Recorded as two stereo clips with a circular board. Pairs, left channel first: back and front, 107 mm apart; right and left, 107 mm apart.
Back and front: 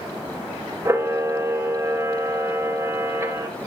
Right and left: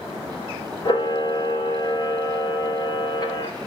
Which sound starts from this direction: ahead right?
A camera shutter, at 0.8 s.